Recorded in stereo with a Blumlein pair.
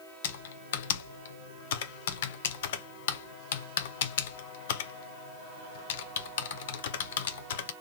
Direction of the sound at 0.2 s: 55° left.